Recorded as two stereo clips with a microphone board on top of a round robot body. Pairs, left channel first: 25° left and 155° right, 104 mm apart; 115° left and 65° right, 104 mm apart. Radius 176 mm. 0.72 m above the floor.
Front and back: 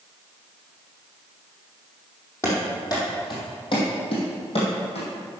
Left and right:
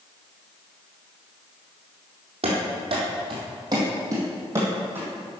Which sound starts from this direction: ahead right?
Running footsteps, at 2.4 s.